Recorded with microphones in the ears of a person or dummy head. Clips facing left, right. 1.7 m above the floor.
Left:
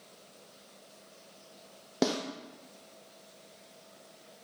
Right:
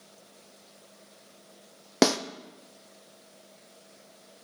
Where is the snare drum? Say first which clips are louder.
Right 6 dB; 80° right, 0.5 m.